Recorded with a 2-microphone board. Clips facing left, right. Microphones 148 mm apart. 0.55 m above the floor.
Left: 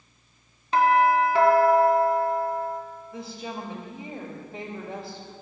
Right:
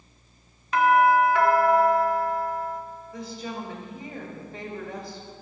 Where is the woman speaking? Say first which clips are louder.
Right 1 dB; 10° left (ahead or behind), 1.7 m.